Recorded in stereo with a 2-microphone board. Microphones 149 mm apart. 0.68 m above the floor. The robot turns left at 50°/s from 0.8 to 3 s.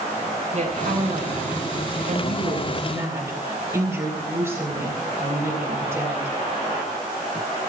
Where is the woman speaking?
55° right, 4 m; by 6.4 s 165° right, 4 m.